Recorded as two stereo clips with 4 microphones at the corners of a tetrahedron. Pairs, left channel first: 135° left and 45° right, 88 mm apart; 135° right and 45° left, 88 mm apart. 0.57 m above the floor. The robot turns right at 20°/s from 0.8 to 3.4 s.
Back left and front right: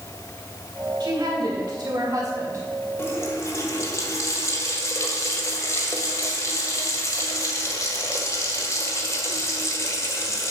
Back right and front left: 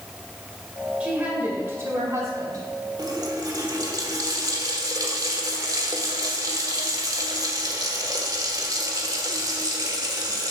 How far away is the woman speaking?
About 2.5 m.